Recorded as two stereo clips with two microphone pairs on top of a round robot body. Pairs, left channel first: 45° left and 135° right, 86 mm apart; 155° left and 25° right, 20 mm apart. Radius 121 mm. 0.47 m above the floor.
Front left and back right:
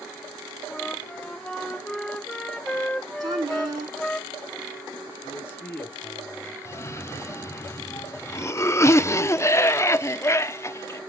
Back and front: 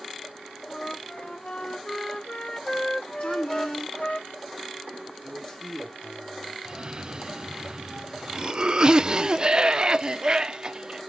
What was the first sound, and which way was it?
A flute, 125° left.